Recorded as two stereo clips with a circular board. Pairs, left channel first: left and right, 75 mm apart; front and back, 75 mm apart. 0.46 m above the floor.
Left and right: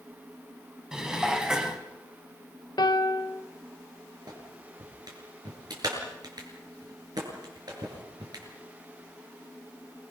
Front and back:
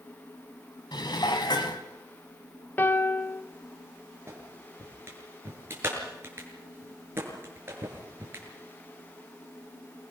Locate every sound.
0.9 s dishes clattering: 10° right, 2 m
2.8 s a piano: 65° left, 0.8 m
4.3 s a clap: 120° right, 7 m